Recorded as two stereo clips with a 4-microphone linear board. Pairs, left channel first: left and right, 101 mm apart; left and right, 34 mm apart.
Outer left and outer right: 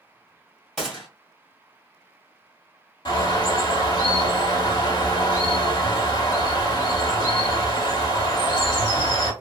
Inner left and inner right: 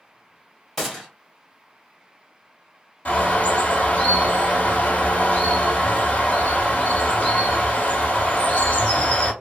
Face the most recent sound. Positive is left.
turn(degrees=45)  # may be behind; listen again after turning